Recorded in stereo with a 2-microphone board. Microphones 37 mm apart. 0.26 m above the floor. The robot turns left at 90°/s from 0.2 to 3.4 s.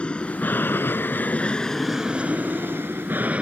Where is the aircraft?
30° left (ahead or behind); by 3.4 s 35° right (ahead or behind).